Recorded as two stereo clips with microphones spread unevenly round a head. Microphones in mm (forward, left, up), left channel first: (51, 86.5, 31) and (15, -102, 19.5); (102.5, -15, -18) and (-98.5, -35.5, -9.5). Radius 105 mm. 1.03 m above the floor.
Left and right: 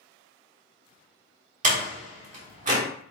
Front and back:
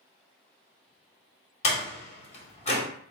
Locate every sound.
1.6 s a door slam: 50° right, 1.7 m